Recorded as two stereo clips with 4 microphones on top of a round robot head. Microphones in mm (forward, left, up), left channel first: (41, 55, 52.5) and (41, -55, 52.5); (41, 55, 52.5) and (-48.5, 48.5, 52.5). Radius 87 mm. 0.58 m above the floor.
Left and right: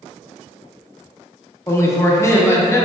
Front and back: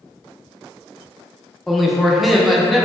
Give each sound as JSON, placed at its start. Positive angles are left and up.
{"t": 1.7, "sound": "a man speaking", "azimuth_deg": 95, "distance_m": 0.6}